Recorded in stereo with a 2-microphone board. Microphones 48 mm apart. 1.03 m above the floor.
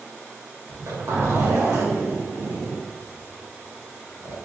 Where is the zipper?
70° right (ahead or behind), 1.2 m.